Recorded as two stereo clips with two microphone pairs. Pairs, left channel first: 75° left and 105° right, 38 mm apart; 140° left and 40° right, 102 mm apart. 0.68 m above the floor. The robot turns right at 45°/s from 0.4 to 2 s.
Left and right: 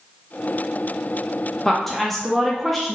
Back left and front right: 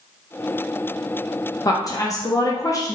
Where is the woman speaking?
135° left, 0.6 m; by 3.0 s 150° left, 0.6 m.